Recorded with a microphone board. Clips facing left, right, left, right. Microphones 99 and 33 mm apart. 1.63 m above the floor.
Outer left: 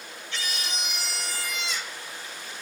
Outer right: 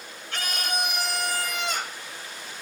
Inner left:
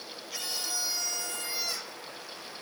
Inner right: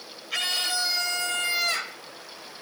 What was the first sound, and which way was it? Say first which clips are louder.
A scream: outer right 5 dB, inner right 9 dB; 55° right (ahead or behind).